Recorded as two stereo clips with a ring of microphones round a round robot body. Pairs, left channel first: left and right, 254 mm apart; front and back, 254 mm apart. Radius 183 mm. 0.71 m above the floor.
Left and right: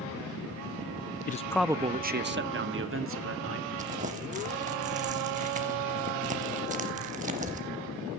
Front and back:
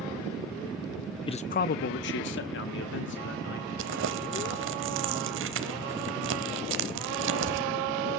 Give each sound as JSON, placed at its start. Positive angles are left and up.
{"t": 1.3, "sound": "a man speaking", "azimuth_deg": 65, "distance_m": 0.5}
{"t": 3.8, "sound": "crumpling", "azimuth_deg": -150, "distance_m": 0.6}